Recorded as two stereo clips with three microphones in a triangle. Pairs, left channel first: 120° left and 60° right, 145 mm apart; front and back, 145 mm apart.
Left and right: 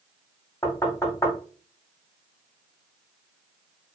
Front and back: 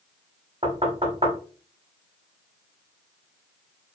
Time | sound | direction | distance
0.6 | knocking | 175° left | 0.9 m